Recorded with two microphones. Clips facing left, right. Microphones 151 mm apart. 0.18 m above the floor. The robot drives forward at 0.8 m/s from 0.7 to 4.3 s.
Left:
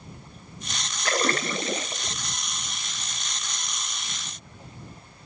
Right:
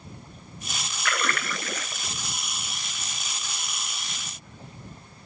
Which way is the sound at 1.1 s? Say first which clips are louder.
Left 5 dB; 35° left (ahead or behind).